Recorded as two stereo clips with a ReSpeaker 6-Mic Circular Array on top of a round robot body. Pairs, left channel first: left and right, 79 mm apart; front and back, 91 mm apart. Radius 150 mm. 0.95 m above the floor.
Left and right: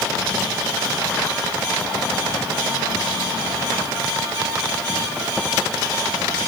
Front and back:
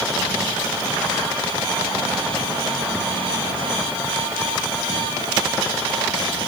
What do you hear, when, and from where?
Only background noise.